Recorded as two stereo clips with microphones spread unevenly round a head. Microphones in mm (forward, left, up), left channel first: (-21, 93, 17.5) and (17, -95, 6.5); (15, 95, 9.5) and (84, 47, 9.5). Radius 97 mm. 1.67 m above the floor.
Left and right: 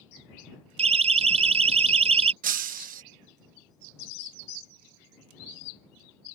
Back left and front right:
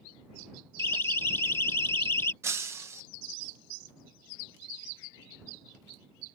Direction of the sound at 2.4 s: 75° right.